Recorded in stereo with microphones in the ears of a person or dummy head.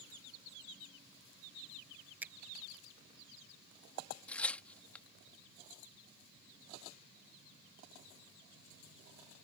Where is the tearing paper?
Centre (ahead or behind).